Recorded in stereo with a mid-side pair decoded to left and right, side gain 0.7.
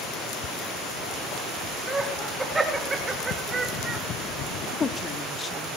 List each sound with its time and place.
1.9 s laughter: 10° right, 4 m; by 4.0 s 30° right, 2.5 m
4.6 s a woman speaking: 25° left, 3 m